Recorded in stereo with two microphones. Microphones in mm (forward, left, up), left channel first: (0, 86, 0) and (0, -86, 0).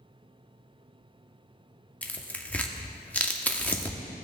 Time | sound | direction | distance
2.0 | tearing paper | 10° left (ahead or behind) | 0.8 m